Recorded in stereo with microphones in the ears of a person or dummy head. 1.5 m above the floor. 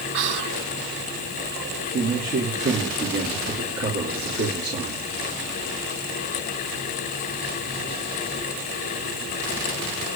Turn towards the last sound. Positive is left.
turn(degrees=-50)  # may be behind; listen again after turning